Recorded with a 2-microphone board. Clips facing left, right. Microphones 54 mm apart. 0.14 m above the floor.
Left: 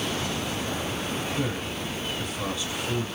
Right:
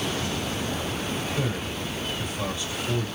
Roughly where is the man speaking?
Centre.